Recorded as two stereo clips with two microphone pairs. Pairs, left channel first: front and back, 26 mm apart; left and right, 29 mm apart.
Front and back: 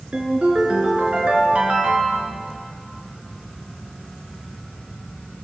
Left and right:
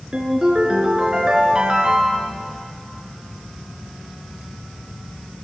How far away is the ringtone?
About 3 m.